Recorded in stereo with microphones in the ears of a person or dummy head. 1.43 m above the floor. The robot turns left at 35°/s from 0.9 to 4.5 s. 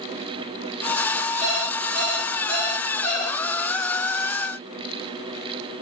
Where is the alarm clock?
45° right, 1.1 m; by 3.4 s 115° right, 1.1 m.